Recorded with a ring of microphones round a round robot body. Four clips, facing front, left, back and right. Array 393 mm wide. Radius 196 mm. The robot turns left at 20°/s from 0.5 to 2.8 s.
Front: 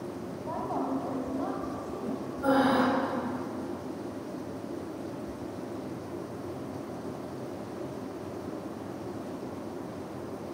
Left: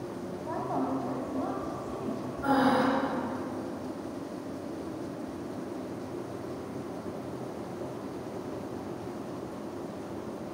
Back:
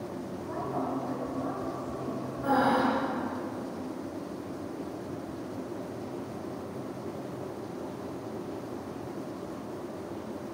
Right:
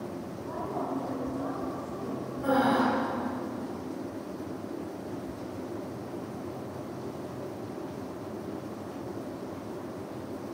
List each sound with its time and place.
0.4 s a woman speaking: 45° left, 3.5 m; by 2.3 s 10° left, 3.5 m
2.4 s breathing: 20° right, 6 m; by 2.8 s 30° right, 6 m